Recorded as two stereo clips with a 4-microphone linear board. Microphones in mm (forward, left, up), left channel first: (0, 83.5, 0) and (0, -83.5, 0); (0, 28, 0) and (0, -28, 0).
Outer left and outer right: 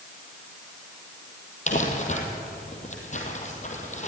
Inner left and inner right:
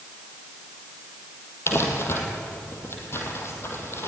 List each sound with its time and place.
1.7 s crumpling: 45° left (ahead or behind), 3.5 m